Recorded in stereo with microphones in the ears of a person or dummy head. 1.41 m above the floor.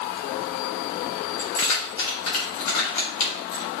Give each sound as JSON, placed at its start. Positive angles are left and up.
{"t": 1.4, "sound": "keys jangling", "side_deg": 75, "distance_m": 4.5}